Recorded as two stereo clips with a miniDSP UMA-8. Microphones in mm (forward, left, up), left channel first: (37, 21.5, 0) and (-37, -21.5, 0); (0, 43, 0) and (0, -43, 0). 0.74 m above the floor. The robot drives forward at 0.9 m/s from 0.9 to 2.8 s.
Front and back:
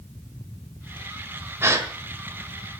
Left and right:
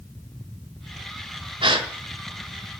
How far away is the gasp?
About 1.5 m.